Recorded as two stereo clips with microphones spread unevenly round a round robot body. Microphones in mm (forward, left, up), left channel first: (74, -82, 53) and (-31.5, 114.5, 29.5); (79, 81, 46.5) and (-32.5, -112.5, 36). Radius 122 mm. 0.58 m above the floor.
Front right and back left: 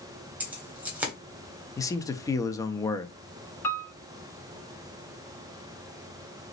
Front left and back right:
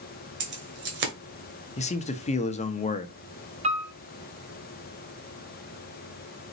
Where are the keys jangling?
160° right, 1.5 m.